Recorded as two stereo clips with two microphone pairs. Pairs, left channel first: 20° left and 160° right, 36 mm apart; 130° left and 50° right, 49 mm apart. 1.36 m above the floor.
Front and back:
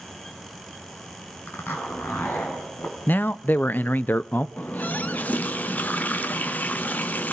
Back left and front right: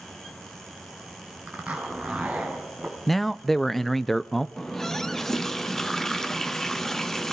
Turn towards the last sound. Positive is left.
turn(degrees=50)